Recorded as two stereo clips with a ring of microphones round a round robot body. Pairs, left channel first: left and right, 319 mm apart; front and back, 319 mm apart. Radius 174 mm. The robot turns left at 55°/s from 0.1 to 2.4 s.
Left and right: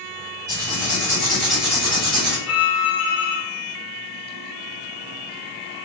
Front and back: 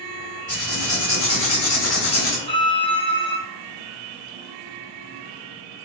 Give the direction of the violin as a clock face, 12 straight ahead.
10 o'clock.